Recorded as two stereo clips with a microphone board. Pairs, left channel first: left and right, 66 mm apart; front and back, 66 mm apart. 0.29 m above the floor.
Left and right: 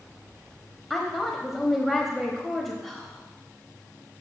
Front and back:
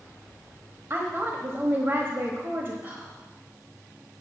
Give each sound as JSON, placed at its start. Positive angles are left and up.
{"t": 0.9, "sound": "a woman speaking", "azimuth_deg": 175, "distance_m": 1.1}
{"t": 2.8, "sound": "whispering", "azimuth_deg": 170, "distance_m": 1.4}